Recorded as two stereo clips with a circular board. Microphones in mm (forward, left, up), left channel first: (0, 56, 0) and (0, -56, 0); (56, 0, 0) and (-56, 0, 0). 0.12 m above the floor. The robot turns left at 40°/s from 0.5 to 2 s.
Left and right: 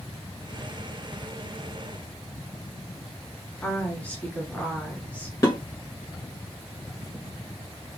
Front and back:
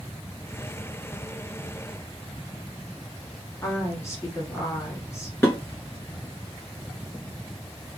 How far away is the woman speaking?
About 1.2 m.